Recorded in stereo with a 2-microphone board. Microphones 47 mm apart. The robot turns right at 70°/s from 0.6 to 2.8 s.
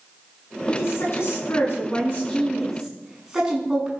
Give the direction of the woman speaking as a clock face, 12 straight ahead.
11 o'clock.